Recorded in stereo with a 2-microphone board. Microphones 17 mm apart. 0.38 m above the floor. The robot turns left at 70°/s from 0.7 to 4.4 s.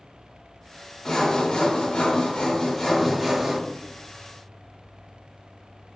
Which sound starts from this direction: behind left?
Sawing, at 1.1 s.